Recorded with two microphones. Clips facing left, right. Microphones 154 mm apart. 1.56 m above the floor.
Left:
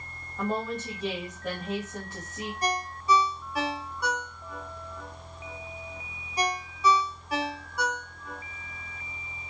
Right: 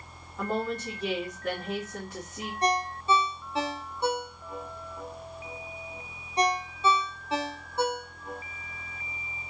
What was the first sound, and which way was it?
A woman speaking, centre (ahead or behind).